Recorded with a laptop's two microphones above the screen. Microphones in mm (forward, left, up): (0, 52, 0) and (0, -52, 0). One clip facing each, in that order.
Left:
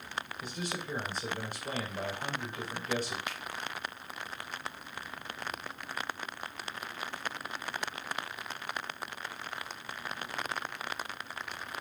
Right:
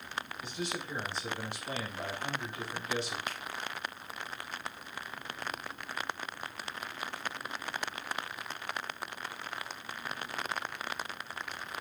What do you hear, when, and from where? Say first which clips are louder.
0.4 s a man speaking: right 1 dB; 45° left (ahead or behind), 4 m
3.3 s a finger snap: even; 40° right (ahead or behind), 1.4 m